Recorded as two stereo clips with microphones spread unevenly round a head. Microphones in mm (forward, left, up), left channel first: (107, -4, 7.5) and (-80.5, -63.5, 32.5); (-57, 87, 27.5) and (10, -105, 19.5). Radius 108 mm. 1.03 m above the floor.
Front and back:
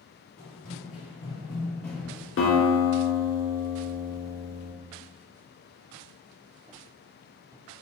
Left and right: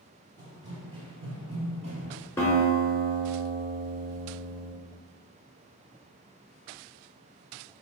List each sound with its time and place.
0.4 s running footsteps: 5° right, 1.3 m; by 2.3 s 95° right, 1.1 m
2.4 s a guitar: 35° left, 0.8 m